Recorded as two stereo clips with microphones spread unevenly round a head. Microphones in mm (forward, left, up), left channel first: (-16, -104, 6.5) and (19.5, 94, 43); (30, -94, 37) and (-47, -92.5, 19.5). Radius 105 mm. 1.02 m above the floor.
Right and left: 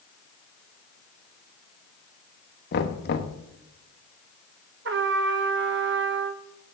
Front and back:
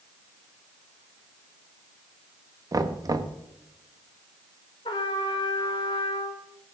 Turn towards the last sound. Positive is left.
turn(degrees=45)